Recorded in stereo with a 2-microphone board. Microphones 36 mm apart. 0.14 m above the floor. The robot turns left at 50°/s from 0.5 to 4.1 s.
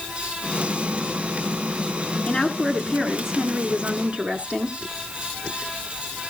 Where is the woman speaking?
25° left, 1.5 m; by 4.8 s 65° right, 1.5 m.